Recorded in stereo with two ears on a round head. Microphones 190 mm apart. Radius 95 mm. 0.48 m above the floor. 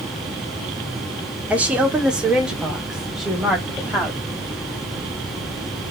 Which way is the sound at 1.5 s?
5° right (ahead or behind).